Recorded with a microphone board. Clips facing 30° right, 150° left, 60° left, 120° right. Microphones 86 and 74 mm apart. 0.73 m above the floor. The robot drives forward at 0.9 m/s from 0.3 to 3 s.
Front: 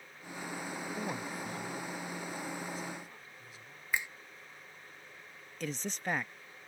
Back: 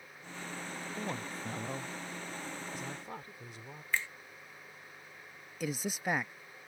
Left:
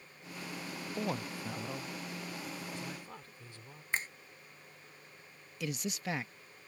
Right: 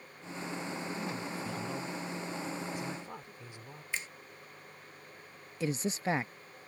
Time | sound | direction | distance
1.0 | a woman speaking | 50° left | ?
3.9 | a finger snap | 40° left | ?
5.6 | a man speaking | 135° right | ?